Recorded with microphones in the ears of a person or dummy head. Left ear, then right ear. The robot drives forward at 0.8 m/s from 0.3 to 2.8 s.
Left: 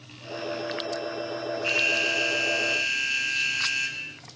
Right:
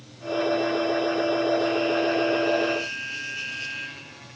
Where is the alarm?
75° left (ahead or behind); by 4.2 s 80° left.